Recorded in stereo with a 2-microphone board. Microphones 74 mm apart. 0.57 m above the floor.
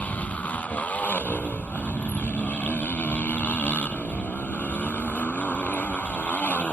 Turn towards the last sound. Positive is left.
turn(degrees=20)  # may be behind; listen again after turning